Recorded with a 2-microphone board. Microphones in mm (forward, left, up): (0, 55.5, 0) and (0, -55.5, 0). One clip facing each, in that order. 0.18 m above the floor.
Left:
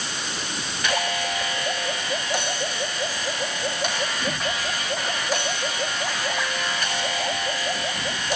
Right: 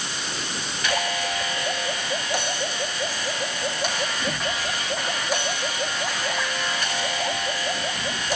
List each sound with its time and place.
Only background noise.